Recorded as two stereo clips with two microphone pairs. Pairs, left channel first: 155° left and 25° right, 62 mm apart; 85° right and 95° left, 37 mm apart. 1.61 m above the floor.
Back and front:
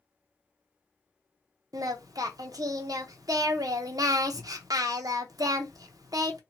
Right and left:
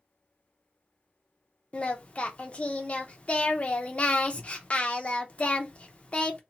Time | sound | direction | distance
1.7 | singing | 30° right | 0.6 m